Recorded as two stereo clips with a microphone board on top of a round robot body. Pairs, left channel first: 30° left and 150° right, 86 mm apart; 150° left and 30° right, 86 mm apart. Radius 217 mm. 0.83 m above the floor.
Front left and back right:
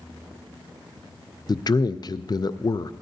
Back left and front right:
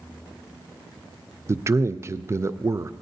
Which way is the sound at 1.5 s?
20° left.